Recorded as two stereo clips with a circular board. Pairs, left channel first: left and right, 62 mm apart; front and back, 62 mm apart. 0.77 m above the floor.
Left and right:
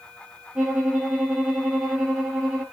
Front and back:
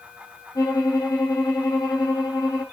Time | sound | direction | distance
0.6 | a violin | 10° right | 5.5 m